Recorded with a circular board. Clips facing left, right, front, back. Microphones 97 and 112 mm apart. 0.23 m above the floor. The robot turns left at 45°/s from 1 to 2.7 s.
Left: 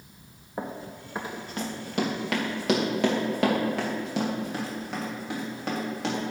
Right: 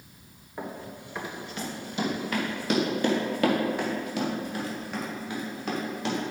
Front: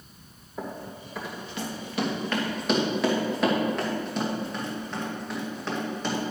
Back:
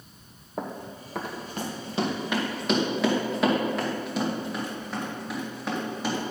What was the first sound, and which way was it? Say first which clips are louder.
Running footsteps: left 2 dB, back 1 dB; 150° left.